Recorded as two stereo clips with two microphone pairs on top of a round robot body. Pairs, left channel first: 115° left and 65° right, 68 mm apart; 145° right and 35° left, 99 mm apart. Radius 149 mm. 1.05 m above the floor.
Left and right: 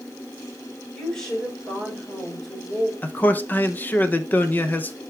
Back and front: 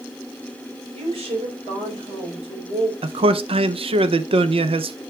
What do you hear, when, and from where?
0.9 s a woman speaking: 40° left, 5 m
3.0 s a man speaking: 55° left, 0.8 m